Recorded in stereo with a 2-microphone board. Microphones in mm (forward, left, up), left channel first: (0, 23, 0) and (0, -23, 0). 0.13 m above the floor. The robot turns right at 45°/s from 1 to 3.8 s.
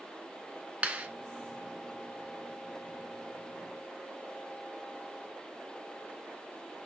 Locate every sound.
0.8 s a clap: 30° right (ahead or behind), 1.0 m; by 1.1 s 25° right (ahead or behind), 1.0 m